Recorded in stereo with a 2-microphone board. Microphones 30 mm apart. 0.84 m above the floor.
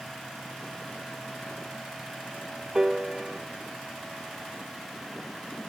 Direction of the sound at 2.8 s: 20° right (ahead or behind).